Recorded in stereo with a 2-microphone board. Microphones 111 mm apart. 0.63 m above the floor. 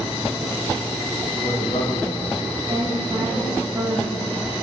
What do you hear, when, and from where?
1.3 s a man speaking: 65° left (ahead or behind), 3.5 m; by 2.4 s 50° left (ahead or behind), 3.5 m
2.7 s a woman speaking: 35° right (ahead or behind), 4 m